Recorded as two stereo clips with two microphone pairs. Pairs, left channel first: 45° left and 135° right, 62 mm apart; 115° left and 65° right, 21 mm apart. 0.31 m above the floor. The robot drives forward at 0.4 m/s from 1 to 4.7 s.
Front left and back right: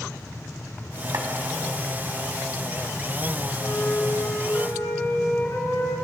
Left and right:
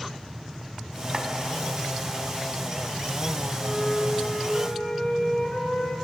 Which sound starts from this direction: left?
A flute, at 3.6 s.